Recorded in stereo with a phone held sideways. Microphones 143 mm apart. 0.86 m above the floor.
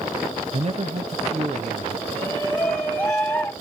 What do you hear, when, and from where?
0.5 s a man speaking: 45° right (ahead or behind), 1.0 m
2.1 s a shout: 15° left (ahead or behind), 1.0 m